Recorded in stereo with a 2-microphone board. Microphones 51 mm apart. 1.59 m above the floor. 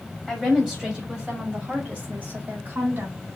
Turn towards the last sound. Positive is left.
turn(degrees=-35)  # may be behind; listen again after turning